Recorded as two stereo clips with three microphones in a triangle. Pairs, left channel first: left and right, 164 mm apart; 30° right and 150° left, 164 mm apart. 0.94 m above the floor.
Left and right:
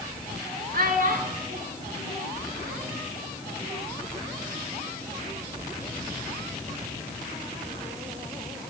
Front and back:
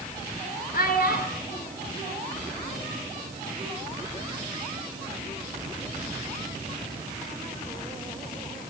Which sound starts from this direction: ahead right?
A child speaking, at 0.7 s.